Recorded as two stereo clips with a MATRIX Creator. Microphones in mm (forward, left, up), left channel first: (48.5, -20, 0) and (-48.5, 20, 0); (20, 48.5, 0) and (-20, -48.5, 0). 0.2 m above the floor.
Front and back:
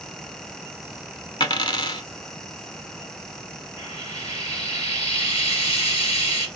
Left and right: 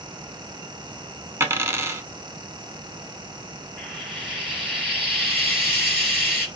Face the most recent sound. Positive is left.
turn(degrees=-30)